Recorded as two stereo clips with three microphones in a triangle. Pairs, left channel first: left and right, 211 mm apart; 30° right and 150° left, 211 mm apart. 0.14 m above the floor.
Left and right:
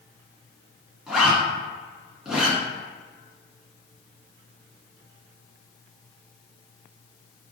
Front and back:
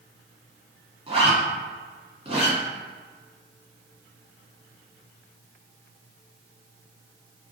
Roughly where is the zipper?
Behind.